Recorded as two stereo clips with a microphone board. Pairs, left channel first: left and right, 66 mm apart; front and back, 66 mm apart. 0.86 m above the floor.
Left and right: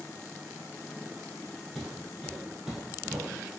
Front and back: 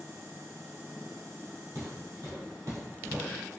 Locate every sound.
1.8 s footsteps: 170° left, 1.6 m; by 3.3 s 150° right, 1.4 m